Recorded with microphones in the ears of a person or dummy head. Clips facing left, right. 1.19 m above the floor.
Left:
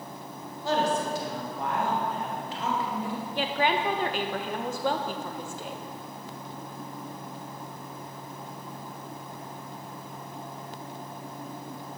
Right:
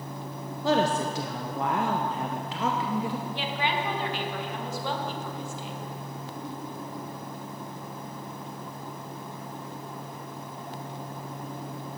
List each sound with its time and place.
0.6 s a woman speaking: 50° right (ahead or behind), 0.7 m
3.4 s a woman speaking: 45° left (ahead or behind), 1.2 m